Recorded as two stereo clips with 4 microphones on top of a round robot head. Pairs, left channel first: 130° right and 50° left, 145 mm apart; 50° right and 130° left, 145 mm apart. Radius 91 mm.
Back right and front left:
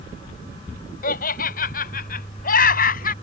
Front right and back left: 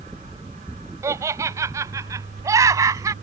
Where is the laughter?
160° right.